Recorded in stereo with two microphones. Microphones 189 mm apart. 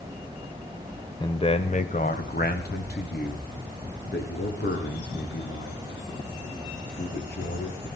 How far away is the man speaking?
About 1.1 m.